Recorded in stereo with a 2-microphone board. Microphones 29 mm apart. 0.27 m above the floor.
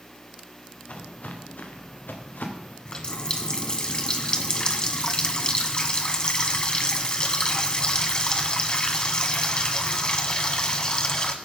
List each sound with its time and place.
0.9 s footsteps: 50° left (ahead or behind), 2.5 m; by 2.8 s 80° left, 3 m
2.9 s a running tap: 30° left (ahead or behind), 1.4 m